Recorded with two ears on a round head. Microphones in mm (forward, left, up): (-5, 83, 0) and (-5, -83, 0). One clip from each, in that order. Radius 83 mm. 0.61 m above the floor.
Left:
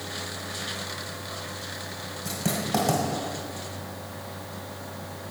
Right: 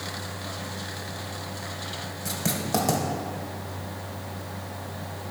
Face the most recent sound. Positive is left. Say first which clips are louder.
# even
turn(degrees=-25)  # may be behind; listen again after turning